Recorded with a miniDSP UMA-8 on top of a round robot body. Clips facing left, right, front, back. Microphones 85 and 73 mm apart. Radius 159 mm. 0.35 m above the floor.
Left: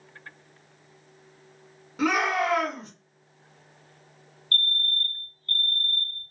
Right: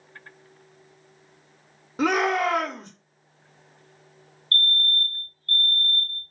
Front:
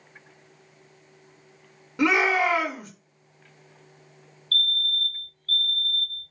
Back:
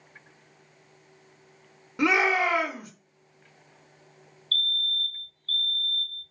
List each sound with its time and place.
2.0 s a shout: 105° right, 1.0 m
4.5 s a fire alarm: 30° left, 1.9 m